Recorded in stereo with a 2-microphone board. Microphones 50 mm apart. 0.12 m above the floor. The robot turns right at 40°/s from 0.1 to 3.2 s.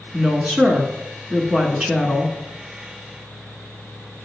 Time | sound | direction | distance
0.1 | a woman speaking | 20° right (ahead or behind) | 1.1 m